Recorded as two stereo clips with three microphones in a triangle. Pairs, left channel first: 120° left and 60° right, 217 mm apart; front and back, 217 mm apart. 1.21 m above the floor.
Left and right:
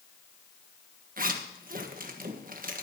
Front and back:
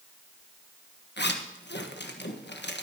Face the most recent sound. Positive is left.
turn(degrees=-20)